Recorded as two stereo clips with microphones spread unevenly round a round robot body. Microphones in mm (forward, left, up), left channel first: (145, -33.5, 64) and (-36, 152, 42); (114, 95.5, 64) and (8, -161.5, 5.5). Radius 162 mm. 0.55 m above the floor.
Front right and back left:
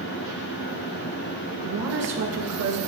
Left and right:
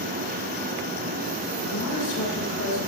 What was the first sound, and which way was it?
A woman speaking, 120° left.